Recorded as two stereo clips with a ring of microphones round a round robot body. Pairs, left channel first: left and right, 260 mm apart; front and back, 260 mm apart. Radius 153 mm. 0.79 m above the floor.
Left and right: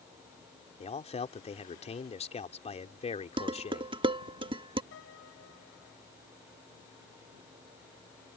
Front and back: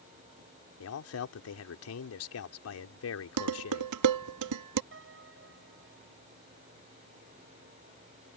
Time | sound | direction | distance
0.8 | a man speaking | 25° left | ?
3.4 | dishes clattering | 165° right | ?
4.9 | a piano | 140° left | ?